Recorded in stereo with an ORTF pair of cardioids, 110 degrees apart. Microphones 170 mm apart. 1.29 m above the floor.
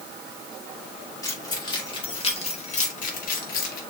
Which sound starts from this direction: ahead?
Keys jangling, at 1.2 s.